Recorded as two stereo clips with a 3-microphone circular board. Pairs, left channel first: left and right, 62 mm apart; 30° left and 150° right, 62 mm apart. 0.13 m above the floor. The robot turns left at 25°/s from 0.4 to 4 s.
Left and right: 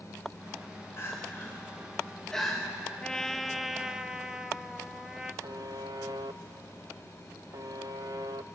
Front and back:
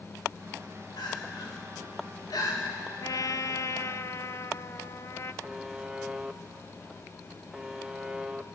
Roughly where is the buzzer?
Ahead right.